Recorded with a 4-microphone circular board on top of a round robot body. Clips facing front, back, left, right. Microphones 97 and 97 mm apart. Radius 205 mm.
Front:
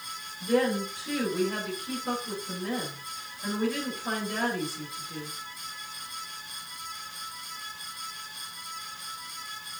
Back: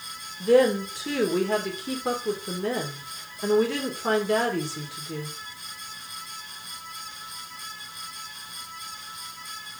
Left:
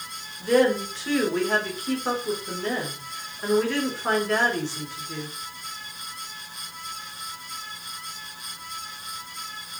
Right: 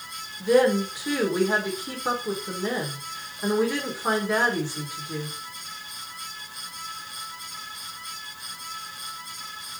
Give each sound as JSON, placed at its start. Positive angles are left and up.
{"t": 0.4, "sound": "a woman speaking", "azimuth_deg": -170, "distance_m": 3.5}